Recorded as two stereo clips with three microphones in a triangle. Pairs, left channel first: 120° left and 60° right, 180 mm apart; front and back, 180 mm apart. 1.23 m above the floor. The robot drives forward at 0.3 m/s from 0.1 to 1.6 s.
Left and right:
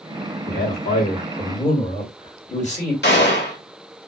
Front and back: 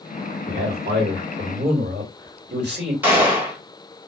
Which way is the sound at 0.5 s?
165° left.